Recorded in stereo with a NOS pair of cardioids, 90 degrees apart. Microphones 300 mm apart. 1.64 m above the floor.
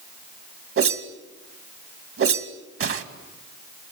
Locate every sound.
0.8 s a whoosh: 45° right, 2 m